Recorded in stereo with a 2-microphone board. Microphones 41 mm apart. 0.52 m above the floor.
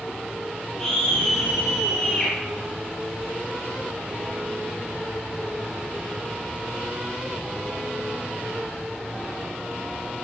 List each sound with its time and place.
0.8 s a scream: 10° left (ahead or behind), 8 m; by 2.3 s 5° left (ahead or behind), 7.5 m